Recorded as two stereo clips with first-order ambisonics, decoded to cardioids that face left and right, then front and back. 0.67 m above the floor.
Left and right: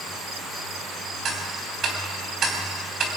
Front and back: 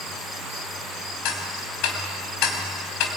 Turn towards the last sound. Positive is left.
turn(degrees=-30)